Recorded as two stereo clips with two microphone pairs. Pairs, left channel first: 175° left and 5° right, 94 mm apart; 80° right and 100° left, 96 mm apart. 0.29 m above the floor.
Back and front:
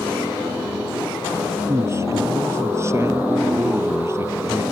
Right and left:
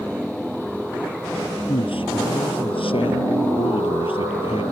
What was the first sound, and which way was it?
A man speaking, 65° right.